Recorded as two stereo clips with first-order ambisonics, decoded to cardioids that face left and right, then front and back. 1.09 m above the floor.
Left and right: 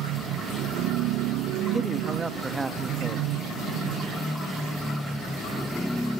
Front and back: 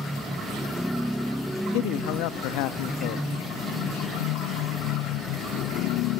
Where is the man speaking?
15° right, 1.4 m.